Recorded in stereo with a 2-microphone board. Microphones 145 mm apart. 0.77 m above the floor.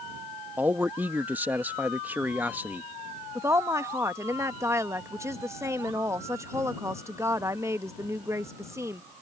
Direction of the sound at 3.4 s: 20° right (ahead or behind).